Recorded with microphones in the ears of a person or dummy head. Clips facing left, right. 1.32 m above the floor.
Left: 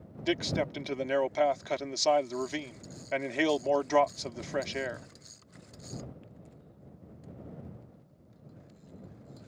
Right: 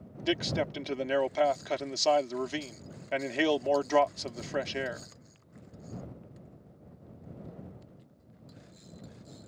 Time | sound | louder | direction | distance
0.2 | a man speaking | even | 10° right (ahead or behind) | ?